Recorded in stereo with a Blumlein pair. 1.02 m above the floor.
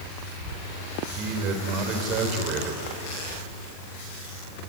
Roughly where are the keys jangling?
No keys jangling in this recording.